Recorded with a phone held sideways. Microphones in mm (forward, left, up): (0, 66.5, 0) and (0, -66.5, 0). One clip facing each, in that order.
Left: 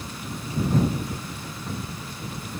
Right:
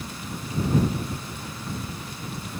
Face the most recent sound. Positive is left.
No sound to turn to.